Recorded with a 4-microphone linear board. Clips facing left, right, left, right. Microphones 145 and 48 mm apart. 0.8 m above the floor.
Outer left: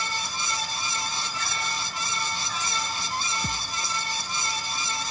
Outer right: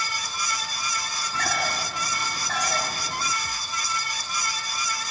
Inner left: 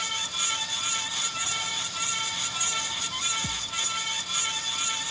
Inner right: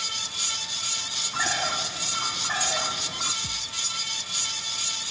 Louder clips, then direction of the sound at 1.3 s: Outer right 5 dB, inner right 5 dB; 70° right (ahead or behind).